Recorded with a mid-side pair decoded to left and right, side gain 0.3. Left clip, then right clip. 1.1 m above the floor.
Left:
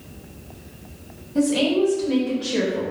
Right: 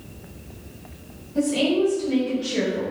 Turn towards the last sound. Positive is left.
turn(degrees=65)